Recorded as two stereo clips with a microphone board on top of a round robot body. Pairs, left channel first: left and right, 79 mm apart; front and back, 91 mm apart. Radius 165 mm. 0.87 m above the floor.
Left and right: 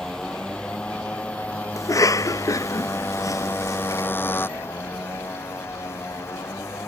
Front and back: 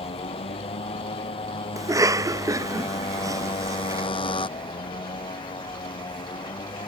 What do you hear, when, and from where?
0.0 s a motorcycle: 10° left; by 6.9 s 35° left
1.8 s a cough: 130° left